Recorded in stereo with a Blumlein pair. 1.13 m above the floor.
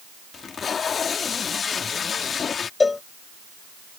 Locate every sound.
0.3 s tape being pulled: 20° left
2.8 s a cowbell: 15° left